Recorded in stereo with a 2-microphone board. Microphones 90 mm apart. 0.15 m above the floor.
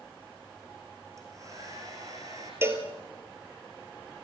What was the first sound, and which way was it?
A hair dryer, 35° right (ahead or behind).